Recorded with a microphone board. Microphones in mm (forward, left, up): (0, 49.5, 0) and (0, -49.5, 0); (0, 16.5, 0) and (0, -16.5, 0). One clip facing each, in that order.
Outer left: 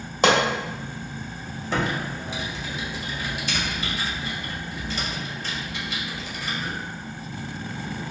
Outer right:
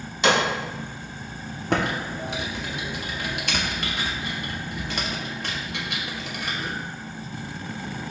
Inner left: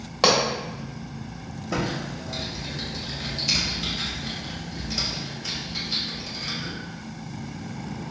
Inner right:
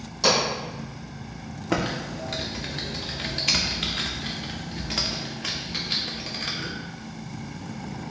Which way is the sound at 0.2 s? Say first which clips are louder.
Outer left 2 dB, inner left 2 dB; 45° left (ahead or behind).